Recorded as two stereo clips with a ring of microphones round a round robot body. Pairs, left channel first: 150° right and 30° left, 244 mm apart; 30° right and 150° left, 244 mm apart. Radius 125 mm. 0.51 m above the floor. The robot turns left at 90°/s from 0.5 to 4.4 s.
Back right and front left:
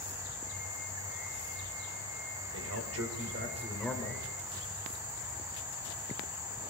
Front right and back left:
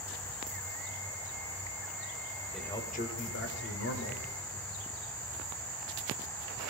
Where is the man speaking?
60° left, 2 m; by 4.2 s 90° right, 2 m.